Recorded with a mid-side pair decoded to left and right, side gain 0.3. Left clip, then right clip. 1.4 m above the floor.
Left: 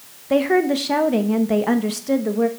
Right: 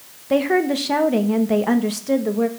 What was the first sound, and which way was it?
A woman speaking, straight ahead.